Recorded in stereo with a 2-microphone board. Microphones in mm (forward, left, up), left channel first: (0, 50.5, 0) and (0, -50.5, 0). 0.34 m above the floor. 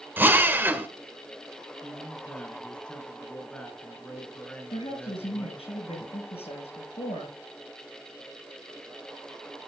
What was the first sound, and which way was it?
A drill, 20° right (ahead or behind).